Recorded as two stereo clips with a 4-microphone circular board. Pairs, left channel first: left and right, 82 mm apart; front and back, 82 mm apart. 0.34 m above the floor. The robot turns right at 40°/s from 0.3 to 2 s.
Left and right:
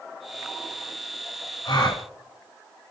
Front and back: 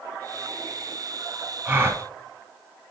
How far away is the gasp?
About 0.7 m.